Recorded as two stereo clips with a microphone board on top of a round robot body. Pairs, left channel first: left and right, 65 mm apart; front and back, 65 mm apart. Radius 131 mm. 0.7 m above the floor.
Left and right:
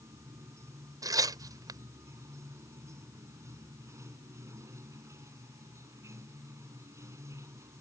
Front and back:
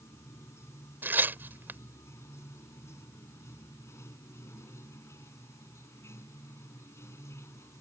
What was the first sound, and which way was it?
Running water, 50° right.